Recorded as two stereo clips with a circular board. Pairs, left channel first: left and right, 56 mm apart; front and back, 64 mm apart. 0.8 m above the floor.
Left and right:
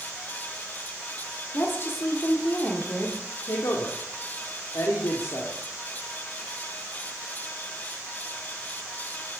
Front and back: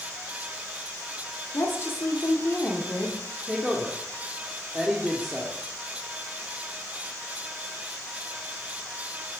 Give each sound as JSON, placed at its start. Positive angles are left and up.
{"t": 1.5, "sound": "a woman speaking", "azimuth_deg": 45, "distance_m": 2.0}
{"t": 3.5, "sound": "a woman speaking", "azimuth_deg": 95, "distance_m": 1.6}